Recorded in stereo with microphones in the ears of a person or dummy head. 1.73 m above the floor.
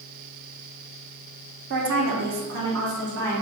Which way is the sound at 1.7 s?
55° right (ahead or behind).